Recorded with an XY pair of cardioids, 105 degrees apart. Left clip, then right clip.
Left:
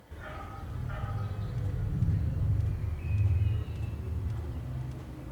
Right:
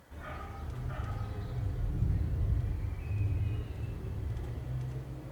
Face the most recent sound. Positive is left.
turn(degrees=65)